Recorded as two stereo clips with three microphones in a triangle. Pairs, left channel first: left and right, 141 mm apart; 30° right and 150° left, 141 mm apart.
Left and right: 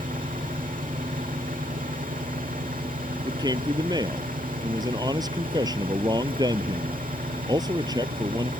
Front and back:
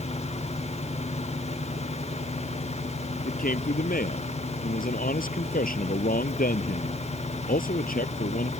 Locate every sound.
0.0 s an engine running: 75° right
3.2 s a man speaking: 30° right